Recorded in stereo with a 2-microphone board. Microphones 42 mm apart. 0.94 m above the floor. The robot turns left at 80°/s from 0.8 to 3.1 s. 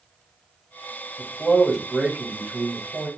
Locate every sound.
1.2 s a man speaking: 30° left, 1.3 m; by 3.1 s 120° right, 1.3 m